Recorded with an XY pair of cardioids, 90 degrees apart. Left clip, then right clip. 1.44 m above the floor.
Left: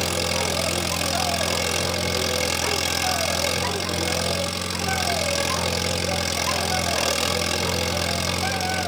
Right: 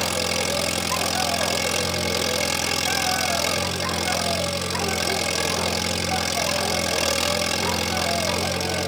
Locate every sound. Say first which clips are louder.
0.0 s an engine running: even; straight ahead, 1.9 m